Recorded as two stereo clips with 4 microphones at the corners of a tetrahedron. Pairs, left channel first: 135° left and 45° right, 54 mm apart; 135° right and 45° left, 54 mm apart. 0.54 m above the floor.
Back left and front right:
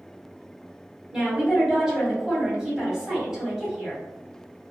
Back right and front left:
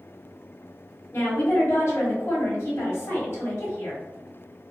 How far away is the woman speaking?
About 1.3 m.